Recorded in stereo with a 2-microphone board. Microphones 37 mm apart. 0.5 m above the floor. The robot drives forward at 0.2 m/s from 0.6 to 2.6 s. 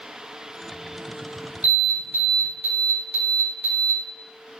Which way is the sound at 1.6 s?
65° right (ahead or behind).